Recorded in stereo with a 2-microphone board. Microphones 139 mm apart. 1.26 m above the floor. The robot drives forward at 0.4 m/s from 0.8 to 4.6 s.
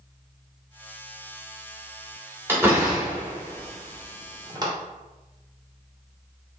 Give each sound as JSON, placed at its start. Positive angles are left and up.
{"t": 2.5, "sound": "a door slam", "side_deg": -15, "distance_m": 1.7}